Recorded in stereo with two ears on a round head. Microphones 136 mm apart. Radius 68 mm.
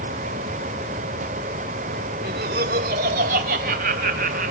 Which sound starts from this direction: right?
Laughter, at 2.2 s.